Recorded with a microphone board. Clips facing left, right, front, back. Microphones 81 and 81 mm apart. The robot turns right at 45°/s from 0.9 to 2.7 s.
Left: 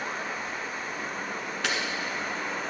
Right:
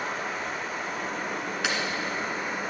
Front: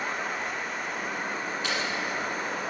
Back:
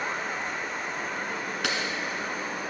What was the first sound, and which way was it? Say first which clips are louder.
Running water: right 2 dB, even; 90° right.